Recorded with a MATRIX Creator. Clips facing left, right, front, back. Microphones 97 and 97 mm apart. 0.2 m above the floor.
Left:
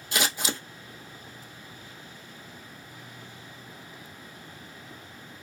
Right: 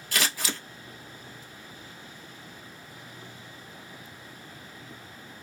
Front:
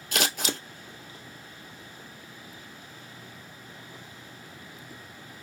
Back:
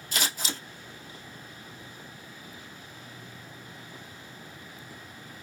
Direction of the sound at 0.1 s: 20° left.